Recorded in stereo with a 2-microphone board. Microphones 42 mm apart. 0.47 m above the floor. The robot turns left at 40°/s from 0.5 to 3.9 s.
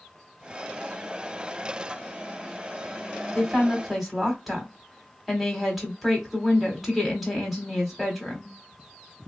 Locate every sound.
3.4 s a woman speaking: 10° left (ahead or behind), 1.2 m; by 8.5 s 5° right (ahead or behind), 1.2 m